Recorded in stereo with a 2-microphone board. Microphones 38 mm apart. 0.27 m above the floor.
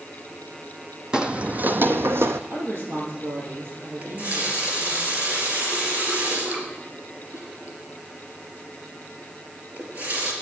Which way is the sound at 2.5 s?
60° right (ahead or behind).